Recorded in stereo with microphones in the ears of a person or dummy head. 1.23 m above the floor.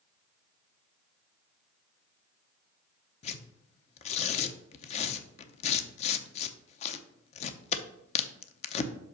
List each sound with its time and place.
3.2 s tearing paper: 40° left (ahead or behind), 0.6 m